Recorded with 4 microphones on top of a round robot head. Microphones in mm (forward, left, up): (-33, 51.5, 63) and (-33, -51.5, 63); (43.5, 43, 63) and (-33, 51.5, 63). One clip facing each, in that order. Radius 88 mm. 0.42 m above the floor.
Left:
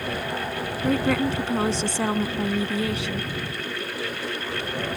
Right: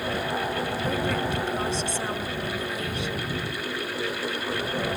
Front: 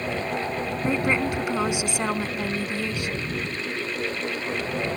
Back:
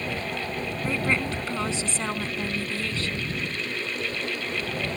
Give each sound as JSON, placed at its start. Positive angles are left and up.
{"t": 0.8, "sound": "a woman speaking", "azimuth_deg": 70}